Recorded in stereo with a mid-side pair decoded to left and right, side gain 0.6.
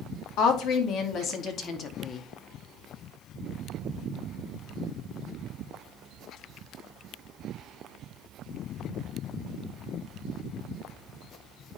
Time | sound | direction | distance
0.4 | a woman speaking | 65° left | 2.5 m